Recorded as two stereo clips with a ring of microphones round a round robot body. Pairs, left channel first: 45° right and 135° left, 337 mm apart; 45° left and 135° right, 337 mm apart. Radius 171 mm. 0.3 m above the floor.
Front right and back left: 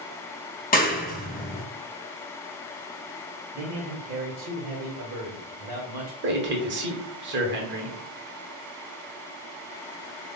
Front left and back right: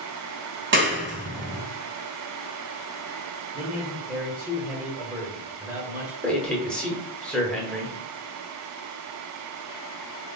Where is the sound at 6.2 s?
130° left, 1.0 m.